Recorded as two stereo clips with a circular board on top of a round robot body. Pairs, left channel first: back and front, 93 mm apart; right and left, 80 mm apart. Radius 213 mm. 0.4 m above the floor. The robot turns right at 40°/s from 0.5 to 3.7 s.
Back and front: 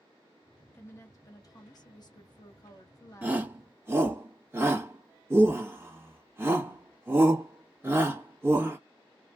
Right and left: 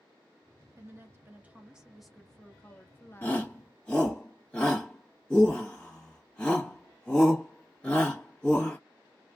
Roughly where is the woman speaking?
Behind left.